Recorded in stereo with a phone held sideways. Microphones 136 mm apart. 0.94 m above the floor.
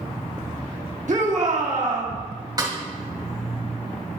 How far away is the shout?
About 1.3 m.